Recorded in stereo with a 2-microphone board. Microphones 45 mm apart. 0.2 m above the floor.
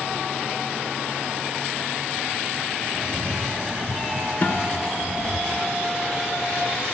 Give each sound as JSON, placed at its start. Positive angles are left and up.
{"t": 2.9, "sound": "a cat meowing", "side_deg": -5, "distance_m": 0.9}
{"t": 4.4, "sound": "a guitar", "side_deg": 40, "distance_m": 1.2}